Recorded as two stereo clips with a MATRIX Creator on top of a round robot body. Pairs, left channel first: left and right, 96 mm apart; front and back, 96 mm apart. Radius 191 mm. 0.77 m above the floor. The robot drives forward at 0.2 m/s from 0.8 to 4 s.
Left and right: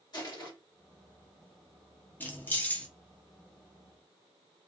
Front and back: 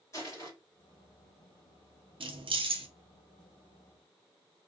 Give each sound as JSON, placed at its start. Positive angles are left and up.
{"t": 0.1, "sound": "crushing", "azimuth_deg": 50, "distance_m": 1.6}
{"t": 2.2, "sound": "keys jangling", "azimuth_deg": 160, "distance_m": 0.6}